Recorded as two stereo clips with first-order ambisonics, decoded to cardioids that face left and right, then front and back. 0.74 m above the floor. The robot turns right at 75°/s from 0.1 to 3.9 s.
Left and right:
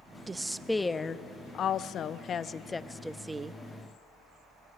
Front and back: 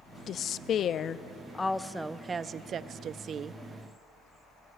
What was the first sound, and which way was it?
A woman speaking, 30° right.